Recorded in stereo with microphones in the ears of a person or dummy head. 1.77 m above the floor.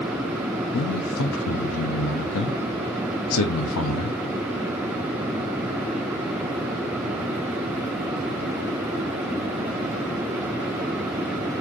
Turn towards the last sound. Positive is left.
turn(degrees=85)